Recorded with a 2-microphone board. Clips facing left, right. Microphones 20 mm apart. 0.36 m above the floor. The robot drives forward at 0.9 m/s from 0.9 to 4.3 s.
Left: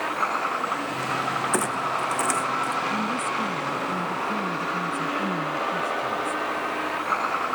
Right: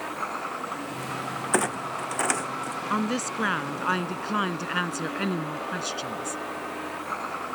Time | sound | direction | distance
0.0 | a vehicle | 25° left (ahead or behind) | ?
1.5 | a clunk | 15° right (ahead or behind) | ?
2.9 | a woman speaking | 65° right (ahead or behind) | ?